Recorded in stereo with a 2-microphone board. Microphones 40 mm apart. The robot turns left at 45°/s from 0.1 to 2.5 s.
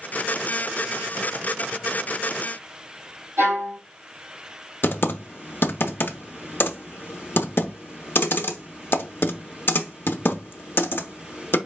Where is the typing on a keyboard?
60° left (ahead or behind), 0.7 m.